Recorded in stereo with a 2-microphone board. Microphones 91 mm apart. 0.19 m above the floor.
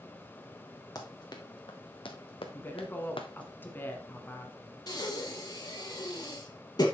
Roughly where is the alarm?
I don't hear an alarm.